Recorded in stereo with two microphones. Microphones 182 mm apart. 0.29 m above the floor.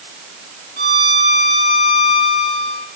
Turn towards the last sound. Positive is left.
turn(degrees=55)  # may be behind; listen again after turning